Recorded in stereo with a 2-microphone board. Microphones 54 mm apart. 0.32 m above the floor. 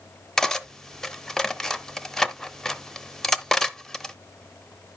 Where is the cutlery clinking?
10° left (ahead or behind), 0.6 m.